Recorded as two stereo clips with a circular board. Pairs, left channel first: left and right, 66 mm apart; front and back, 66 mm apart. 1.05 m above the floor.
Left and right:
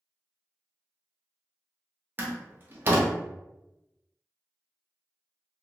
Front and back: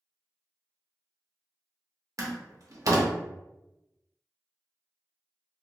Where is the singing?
No singing in this recording.